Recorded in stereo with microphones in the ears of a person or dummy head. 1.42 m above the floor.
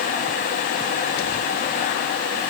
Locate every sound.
Only background noise.